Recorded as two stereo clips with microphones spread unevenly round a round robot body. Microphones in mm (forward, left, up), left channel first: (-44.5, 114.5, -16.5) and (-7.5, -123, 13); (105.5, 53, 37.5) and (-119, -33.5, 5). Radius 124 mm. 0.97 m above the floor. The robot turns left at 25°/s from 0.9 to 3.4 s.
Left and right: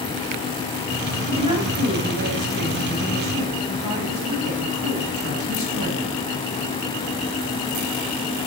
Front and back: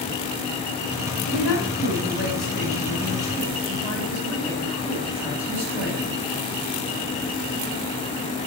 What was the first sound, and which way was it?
A woman speaking, 5° right.